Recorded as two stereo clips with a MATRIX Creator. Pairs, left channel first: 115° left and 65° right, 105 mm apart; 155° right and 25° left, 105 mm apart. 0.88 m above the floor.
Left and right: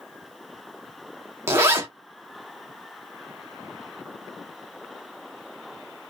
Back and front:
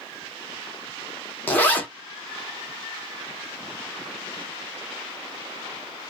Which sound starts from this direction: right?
A zipper, at 1.5 s.